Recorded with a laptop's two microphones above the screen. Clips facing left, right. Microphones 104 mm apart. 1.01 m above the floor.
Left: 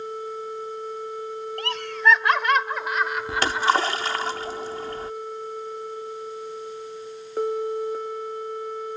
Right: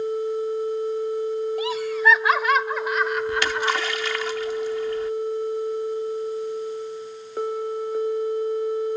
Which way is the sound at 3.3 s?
40° left (ahead or behind).